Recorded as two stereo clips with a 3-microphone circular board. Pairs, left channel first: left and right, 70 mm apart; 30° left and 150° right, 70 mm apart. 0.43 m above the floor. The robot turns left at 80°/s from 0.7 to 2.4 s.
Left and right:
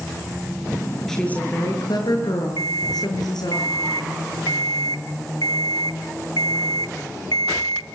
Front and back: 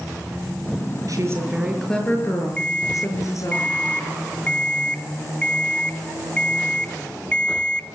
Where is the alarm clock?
105° left, 1.2 m.